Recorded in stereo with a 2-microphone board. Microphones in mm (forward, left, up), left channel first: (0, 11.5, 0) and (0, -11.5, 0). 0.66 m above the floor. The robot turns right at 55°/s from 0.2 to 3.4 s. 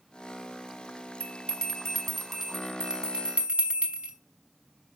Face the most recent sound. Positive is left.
turn(degrees=-60)  # may be behind; listen again after turning